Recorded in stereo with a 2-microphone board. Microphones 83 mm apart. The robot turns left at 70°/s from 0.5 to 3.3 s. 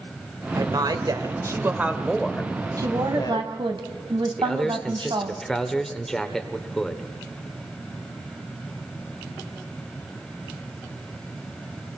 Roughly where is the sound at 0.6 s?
Right.